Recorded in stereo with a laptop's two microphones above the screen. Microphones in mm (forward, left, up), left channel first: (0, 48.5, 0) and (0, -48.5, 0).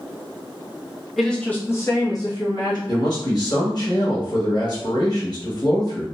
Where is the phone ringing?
No phone ringing in this recording.